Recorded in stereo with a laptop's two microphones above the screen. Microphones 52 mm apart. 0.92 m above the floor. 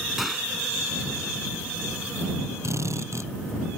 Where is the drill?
65° right (ahead or behind).